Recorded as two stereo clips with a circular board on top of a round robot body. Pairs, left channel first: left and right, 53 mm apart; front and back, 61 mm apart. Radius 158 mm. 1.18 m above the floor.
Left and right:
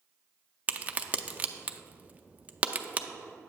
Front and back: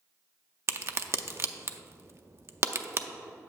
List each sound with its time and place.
0.7 s a crack: 150° right, 0.6 m